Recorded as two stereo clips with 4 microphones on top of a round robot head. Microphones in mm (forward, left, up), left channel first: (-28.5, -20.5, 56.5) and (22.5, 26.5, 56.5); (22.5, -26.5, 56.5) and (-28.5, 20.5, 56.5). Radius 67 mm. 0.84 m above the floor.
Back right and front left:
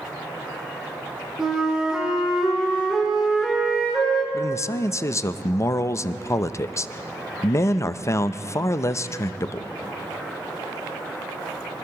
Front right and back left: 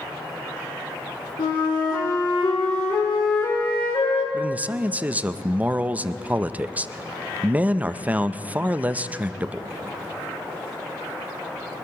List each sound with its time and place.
1.4 s a flute: 35° right, 4 m
4.3 s a man speaking: 160° right, 0.6 m